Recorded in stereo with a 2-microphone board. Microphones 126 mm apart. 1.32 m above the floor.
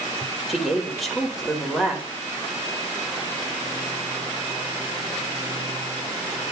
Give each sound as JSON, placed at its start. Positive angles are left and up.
{"t": 0.5, "sound": "a woman speaking", "side_deg": 0, "distance_m": 5.0}